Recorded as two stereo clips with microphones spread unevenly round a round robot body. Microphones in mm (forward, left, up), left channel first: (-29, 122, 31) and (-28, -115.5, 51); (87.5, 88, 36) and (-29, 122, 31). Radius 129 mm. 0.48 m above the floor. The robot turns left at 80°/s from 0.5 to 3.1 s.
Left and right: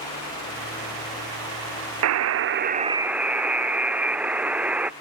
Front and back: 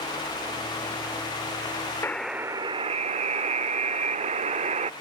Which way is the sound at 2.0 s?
90° right.